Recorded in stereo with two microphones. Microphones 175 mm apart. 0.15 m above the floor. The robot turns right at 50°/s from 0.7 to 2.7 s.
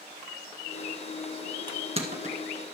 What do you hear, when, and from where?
1.7 s crushing: 25° right (ahead or behind), 1.5 m; by 2.4 s 45° right (ahead or behind), 1.5 m